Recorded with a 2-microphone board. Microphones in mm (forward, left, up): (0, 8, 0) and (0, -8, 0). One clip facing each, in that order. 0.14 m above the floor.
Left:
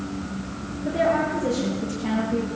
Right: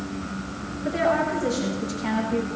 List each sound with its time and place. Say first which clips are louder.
0.8 s a woman speaking: left 1 dB; 75° right (ahead or behind), 9.5 m; by 2.5 s 80° right, 9.5 m